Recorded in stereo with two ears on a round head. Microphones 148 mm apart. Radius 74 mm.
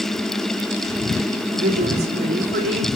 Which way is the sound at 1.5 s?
65° right (ahead or behind).